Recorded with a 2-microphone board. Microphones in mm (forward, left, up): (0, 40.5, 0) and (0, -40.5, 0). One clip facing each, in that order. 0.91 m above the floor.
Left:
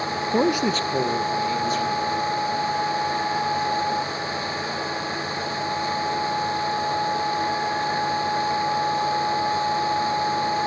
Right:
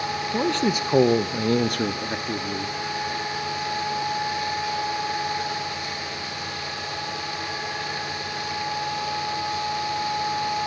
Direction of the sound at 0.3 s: 25° left (ahead or behind).